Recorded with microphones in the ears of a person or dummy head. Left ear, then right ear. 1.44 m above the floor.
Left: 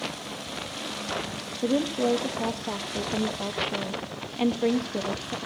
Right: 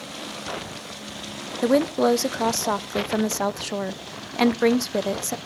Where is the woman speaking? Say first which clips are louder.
Right 6 dB; 55° right (ahead or behind), 0.5 m.